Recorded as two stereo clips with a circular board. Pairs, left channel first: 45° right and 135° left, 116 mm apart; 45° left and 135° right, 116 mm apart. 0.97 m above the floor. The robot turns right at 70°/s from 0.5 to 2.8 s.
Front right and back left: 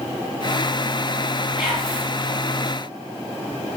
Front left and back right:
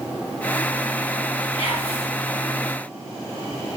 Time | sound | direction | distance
1.6 | whispering | 145° right | 2 m